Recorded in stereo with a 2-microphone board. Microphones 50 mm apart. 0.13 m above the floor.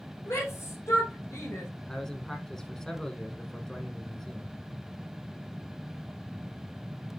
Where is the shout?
65° left (ahead or behind), 6 m; by 1.7 s 75° left (ahead or behind), 5 m.